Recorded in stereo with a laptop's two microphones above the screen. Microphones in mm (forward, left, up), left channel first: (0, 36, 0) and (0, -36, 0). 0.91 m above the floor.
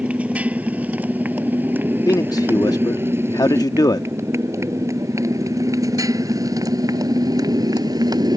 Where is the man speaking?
60° left (ahead or behind).